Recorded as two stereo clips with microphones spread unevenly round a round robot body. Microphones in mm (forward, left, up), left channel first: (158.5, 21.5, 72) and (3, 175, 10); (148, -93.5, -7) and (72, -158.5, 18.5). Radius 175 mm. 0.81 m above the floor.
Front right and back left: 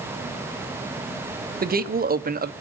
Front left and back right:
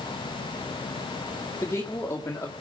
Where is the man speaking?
105° left, 1.4 m.